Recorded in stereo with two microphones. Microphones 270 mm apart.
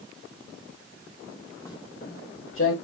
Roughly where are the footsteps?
Centre.